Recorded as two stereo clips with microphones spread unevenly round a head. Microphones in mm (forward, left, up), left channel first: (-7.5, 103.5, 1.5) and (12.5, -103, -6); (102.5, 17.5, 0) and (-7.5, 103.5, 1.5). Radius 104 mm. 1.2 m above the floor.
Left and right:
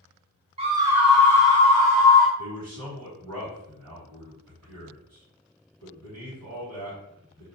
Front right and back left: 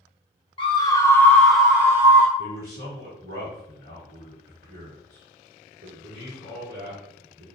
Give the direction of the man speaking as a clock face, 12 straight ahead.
4 o'clock.